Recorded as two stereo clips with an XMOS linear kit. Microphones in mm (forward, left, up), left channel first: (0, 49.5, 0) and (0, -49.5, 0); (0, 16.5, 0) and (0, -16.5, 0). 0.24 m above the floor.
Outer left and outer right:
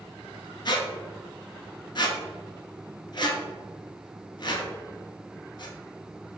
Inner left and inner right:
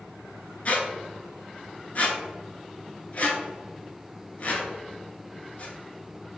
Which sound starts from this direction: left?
A squeak, at 0.7 s.